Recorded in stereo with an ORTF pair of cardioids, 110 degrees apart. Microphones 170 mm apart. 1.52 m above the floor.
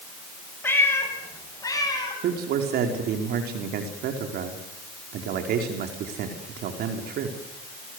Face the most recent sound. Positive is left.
turn(degrees=-70)